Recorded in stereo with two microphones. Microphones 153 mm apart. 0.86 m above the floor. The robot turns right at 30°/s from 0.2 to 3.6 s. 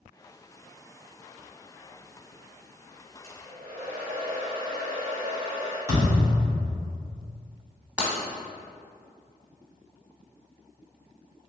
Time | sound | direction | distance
3.2 | a hair dryer | 45° right (ahead or behind) | 1.2 m
5.9 | a thud | 25° right (ahead or behind) | 1.8 m
8.0 | breaking glass | 10° right (ahead or behind) | 1.0 m